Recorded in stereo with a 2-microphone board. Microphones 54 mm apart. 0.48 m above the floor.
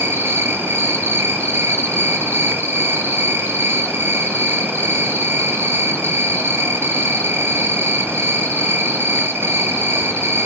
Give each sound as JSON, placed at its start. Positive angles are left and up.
{"t": 0.0, "sound": "an insect", "side_deg": -60, "distance_m": 1.9}